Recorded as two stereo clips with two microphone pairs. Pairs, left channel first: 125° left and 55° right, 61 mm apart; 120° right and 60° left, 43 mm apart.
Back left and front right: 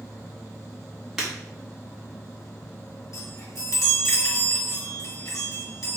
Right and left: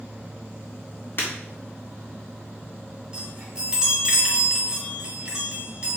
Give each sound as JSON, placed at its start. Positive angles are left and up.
{"t": 1.2, "sound": "breaking glass", "azimuth_deg": -140, "distance_m": 2.5}
{"t": 3.1, "sound": "a chime", "azimuth_deg": 130, "distance_m": 2.0}